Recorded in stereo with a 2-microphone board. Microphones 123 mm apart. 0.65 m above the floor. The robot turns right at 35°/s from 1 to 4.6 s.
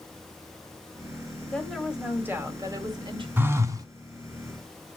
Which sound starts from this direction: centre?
A phone buzzing, at 3.4 s.